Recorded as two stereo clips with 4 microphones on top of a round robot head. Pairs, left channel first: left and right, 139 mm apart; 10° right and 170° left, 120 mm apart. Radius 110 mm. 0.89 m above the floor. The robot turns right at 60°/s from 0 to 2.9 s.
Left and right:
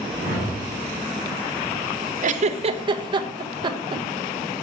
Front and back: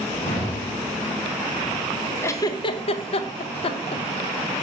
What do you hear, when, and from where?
0.2 s a whoosh: 65° right, 2 m; by 0.7 s 35° right, 2 m
2.2 s a giggle: 80° right, 0.5 m; by 4.0 s 40° right, 0.5 m